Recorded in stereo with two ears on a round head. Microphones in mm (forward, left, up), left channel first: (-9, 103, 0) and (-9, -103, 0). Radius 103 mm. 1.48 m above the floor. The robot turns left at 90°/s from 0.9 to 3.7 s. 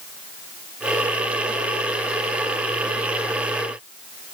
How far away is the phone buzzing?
I don't hear a phone buzzing.